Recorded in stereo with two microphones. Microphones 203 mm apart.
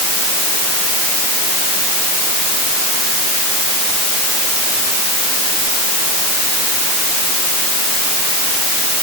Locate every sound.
Only background noise.